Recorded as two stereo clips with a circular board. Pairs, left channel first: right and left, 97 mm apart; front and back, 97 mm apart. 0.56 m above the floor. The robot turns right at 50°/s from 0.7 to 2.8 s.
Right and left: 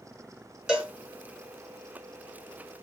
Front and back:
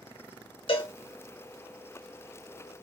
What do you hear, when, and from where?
0.7 s a cowbell: 5° left, 2 m; by 0.9 s 20° left, 2 m